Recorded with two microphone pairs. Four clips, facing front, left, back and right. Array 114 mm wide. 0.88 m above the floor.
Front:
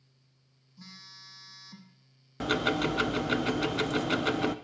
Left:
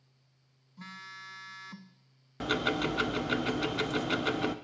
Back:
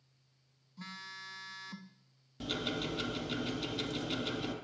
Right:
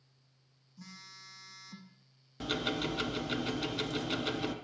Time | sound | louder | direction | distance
0.8 | a phone buzzing | left 7 dB, back 5 dB | 120° left | 0.7 m
2.4 | ticking | left 4 dB, front 10 dB | 30° left | 0.6 m